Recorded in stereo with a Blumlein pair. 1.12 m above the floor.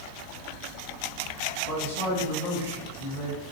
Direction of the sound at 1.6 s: 70° left.